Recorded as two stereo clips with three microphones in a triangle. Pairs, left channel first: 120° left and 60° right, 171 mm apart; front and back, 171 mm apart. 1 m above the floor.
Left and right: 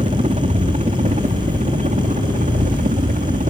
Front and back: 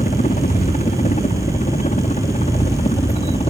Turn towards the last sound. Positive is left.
turn(degrees=-40)